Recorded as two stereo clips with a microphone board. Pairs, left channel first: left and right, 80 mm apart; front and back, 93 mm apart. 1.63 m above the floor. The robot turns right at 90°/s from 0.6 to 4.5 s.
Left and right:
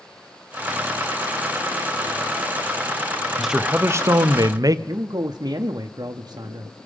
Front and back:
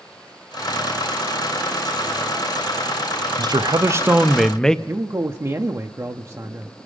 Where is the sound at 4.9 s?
125° right, 0.6 m.